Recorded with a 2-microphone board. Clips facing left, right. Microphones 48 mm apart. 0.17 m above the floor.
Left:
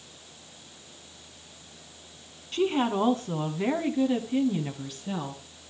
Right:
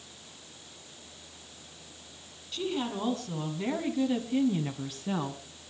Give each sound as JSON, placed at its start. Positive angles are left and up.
{"t": 2.5, "sound": "a woman speaking", "side_deg": 45, "distance_m": 1.6}